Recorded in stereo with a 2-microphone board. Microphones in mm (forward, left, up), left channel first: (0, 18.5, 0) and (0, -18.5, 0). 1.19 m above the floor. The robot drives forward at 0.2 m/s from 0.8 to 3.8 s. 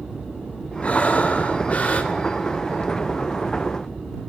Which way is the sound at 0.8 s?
35° left (ahead or behind).